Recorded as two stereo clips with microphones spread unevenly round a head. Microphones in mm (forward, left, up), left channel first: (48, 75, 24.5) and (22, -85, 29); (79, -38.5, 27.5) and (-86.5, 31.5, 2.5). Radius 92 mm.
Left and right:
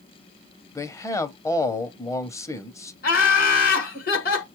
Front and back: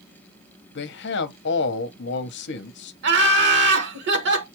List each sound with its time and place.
0.8 s a man speaking: 10° left, 0.7 m
3.0 s laughter: 125° left, 1.5 m